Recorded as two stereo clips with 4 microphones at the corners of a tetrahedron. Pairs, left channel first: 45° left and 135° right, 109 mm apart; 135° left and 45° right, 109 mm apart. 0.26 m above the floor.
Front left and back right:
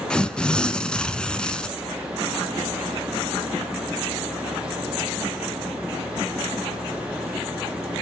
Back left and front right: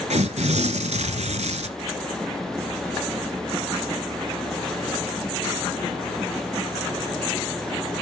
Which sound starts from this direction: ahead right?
Tearing paper, at 0.1 s.